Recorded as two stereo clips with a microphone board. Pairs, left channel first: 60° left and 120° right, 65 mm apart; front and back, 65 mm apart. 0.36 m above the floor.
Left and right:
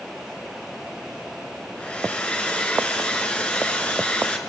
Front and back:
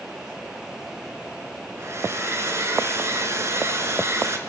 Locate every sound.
1.8 s a hair dryer: 130° left, 3.5 m